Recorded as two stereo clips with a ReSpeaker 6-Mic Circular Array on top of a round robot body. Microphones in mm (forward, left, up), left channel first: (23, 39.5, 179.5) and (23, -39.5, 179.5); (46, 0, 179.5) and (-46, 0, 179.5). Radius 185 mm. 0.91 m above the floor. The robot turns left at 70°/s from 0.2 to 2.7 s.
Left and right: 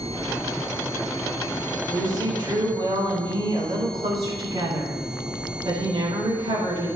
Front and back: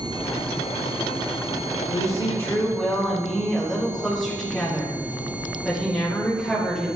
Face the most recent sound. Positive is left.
turn(degrees=-85)